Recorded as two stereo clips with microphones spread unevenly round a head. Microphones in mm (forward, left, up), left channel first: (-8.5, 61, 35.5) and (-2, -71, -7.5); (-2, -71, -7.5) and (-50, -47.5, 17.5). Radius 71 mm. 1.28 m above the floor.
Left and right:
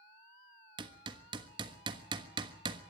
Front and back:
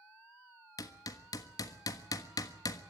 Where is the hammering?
25° right, 1.4 m.